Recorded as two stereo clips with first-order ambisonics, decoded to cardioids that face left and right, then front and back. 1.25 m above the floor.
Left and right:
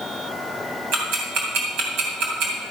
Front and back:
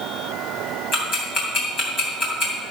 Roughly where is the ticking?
Ahead right.